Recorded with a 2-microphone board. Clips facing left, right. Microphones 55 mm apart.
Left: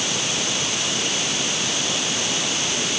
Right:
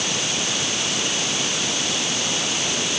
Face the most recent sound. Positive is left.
No sound to turn to.